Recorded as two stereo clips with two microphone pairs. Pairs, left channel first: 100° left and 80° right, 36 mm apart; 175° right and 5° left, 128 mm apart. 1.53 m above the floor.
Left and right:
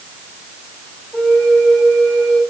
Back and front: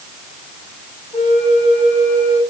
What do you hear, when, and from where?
1.1 s a flute: 165° left, 3.5 m